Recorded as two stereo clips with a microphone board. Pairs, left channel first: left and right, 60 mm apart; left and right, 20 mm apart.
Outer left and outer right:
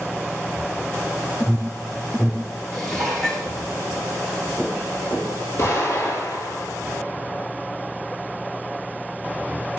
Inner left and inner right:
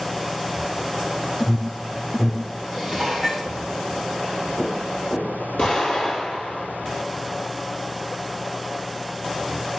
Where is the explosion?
55° left (ahead or behind), 4 m.